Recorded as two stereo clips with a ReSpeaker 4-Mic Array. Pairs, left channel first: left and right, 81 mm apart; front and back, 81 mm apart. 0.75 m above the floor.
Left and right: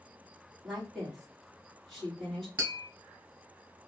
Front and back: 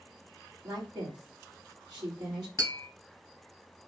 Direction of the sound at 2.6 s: 145° right.